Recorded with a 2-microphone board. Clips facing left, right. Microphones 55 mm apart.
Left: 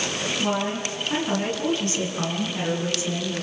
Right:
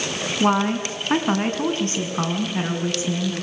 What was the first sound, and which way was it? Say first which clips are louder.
A woman speaking: right 8 dB; 55° right (ahead or behind).